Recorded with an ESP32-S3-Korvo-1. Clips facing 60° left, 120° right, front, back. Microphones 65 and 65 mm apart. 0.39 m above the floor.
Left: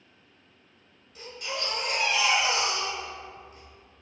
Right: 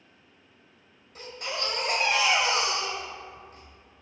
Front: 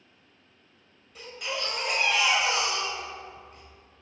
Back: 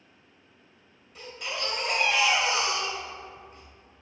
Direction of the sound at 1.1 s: 90° right.